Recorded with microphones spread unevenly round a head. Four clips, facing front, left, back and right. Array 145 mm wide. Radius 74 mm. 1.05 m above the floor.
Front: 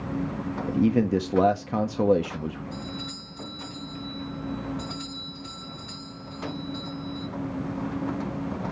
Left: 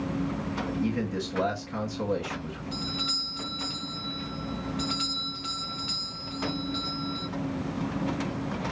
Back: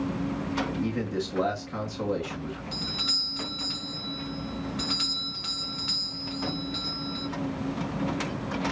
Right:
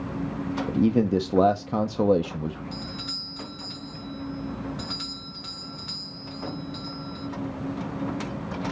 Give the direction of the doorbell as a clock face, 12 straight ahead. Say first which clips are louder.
Left 2 dB, front 1 dB; 7 o'clock.